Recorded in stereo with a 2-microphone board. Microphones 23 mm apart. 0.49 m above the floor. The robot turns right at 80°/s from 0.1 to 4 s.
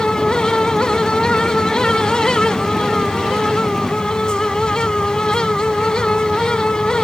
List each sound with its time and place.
Only background noise.